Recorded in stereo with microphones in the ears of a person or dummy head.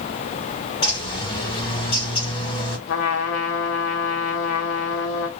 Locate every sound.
0.8 s a bird: 25° left (ahead or behind), 1.7 m
2.9 s a trumpet: 65° left (ahead or behind), 0.8 m